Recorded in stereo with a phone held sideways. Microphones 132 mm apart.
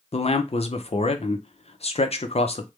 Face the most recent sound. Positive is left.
turn(degrees=50)  # may be behind; listen again after turning